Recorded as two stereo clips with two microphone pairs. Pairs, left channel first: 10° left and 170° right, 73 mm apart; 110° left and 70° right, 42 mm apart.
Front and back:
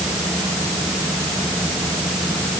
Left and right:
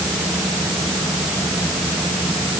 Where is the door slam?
No door slam in this recording.